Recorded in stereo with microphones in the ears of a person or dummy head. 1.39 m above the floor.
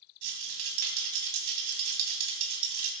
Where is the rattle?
50° right (ahead or behind), 3 m.